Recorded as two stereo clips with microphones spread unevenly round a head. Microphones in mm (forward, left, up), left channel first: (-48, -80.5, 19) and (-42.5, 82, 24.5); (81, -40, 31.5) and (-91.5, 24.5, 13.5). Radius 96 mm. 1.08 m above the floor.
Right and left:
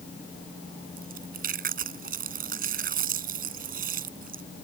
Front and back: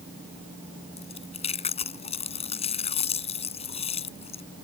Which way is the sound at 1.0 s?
40° left.